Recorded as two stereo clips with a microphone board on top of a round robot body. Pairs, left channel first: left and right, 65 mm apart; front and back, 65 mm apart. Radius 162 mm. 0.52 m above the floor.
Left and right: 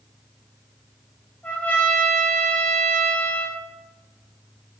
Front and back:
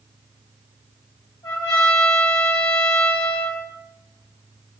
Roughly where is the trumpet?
Ahead.